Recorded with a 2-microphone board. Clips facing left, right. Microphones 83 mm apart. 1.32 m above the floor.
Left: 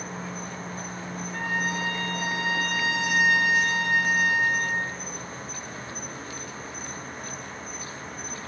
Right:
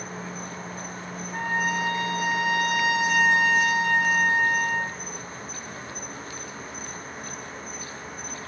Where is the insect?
Centre (ahead or behind), 2.5 m.